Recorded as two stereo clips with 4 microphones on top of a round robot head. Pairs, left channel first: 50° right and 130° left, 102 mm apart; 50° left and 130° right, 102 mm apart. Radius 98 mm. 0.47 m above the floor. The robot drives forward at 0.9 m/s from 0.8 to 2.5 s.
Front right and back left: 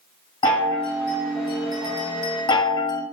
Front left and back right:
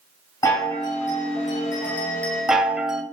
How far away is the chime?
About 1.8 m.